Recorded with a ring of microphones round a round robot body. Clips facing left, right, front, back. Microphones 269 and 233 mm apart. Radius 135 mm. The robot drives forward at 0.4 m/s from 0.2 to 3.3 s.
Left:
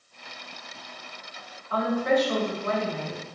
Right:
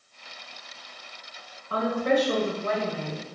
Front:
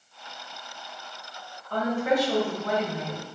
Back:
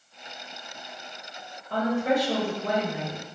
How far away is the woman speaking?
About 1.6 m.